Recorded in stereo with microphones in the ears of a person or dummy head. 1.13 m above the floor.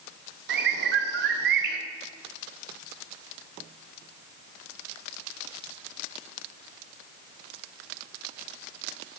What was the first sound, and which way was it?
A bird, 65° right (ahead or behind).